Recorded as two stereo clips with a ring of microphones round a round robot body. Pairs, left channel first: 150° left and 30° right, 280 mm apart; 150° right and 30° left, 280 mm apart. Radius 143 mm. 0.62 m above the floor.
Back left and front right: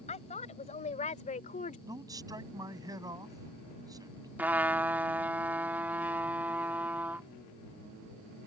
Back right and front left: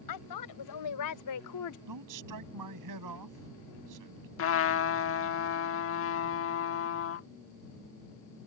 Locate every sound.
0.1 s a woman speaking: 145° right
1.9 s a man speaking: 45° left
4.4 s a trumpet: 115° right